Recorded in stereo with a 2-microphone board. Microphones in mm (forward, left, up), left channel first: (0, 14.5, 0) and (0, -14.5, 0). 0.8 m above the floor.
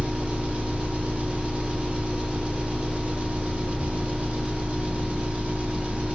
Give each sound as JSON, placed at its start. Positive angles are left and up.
{"t": 0.0, "sound": "an engine running", "side_deg": -45, "distance_m": 0.8}